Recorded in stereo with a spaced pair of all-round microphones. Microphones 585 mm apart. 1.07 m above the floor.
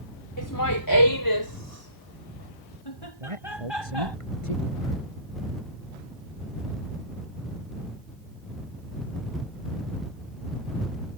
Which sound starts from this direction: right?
A man speaking, at 3.2 s.